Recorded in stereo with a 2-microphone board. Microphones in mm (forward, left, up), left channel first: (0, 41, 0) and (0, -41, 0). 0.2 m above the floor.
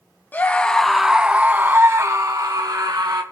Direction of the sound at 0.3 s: 25° left (ahead or behind).